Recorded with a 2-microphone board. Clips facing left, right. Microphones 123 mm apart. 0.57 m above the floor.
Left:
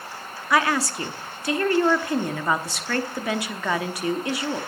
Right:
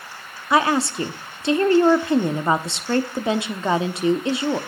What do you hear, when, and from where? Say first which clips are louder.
0.5 s a woman speaking: right 3 dB; 20° right (ahead or behind), 0.9 m